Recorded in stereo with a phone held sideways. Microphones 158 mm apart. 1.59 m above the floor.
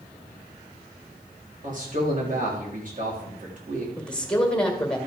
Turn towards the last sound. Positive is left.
turn(degrees=5)  # may be behind; listen again after turning